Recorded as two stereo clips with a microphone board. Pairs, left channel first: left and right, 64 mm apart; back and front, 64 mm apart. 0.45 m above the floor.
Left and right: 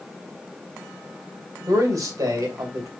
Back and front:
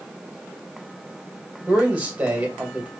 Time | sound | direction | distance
1.7 | a man speaking | 70° right | 2.5 m